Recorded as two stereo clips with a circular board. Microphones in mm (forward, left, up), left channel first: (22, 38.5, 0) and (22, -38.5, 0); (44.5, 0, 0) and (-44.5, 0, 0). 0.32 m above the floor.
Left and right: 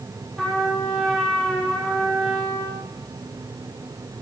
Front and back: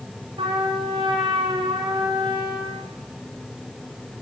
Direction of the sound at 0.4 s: 175° left.